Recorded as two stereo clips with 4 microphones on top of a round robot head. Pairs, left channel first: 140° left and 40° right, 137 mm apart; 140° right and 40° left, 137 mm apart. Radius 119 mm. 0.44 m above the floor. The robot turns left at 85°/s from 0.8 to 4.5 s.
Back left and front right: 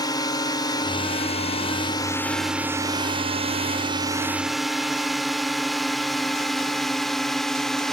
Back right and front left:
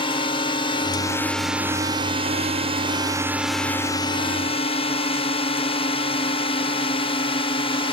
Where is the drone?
170° right; by 7.9 s 135° right.